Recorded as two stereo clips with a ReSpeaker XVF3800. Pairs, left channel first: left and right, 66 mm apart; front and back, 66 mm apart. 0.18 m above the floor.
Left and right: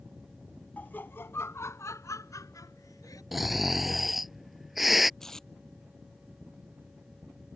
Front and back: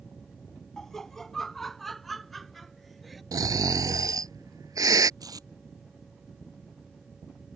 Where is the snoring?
175° right.